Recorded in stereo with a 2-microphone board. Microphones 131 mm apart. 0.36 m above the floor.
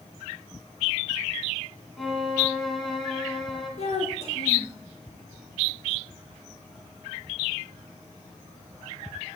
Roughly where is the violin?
Centre.